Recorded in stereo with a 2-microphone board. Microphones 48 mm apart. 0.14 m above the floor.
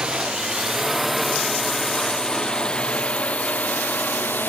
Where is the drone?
15° right (ahead or behind); by 4.5 s 40° left (ahead or behind).